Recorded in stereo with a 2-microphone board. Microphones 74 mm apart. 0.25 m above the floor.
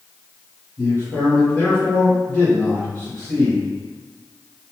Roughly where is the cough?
I don't hear a cough.